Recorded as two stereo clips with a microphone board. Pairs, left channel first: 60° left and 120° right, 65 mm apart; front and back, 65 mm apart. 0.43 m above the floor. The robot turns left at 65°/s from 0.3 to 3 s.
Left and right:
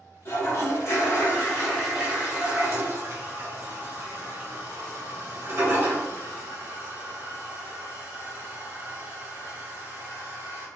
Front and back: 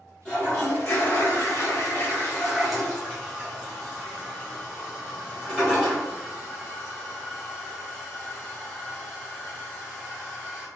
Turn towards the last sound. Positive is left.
turn(degrees=-110)